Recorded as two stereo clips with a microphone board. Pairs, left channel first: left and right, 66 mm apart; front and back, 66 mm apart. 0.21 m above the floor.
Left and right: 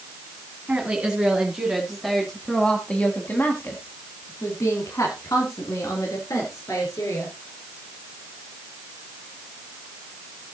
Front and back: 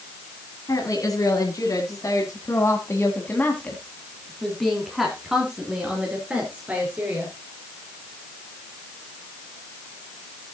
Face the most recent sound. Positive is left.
turn(degrees=115)